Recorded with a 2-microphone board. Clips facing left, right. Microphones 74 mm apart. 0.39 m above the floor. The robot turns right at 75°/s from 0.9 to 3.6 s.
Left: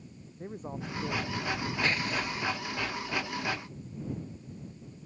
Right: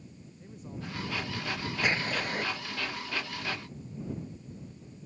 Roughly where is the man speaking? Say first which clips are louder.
Left 4 dB; behind left.